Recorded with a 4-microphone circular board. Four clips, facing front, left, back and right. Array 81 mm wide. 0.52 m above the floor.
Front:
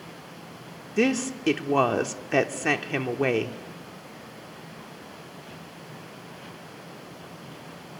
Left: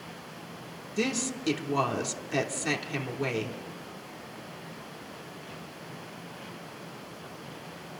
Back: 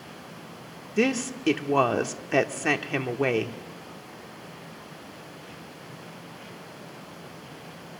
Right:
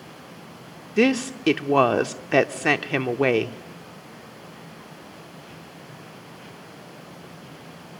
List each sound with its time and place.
1.0 s a woman speaking: 85° right, 1.0 m